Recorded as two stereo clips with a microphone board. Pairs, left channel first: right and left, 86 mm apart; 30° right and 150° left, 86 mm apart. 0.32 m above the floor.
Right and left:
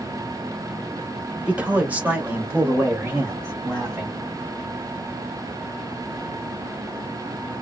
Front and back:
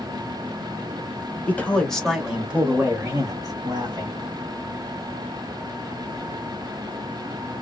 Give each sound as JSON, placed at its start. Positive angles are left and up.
{"t": 1.5, "sound": "a man speaking", "azimuth_deg": 25, "distance_m": 1.4}